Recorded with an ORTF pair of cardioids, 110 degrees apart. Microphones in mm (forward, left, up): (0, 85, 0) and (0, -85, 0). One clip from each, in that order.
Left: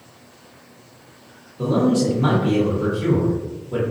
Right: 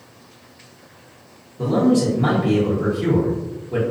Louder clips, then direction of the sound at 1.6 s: Right 1 dB; 5° right.